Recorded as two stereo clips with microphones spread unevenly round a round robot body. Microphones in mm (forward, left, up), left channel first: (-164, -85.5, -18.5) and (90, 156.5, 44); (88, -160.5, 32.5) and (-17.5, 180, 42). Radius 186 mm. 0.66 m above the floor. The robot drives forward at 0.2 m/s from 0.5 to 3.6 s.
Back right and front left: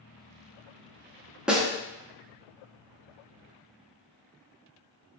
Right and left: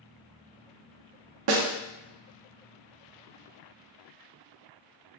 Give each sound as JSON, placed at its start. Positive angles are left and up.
{"t": 1.5, "sound": "a snare drum", "azimuth_deg": 135, "distance_m": 0.5}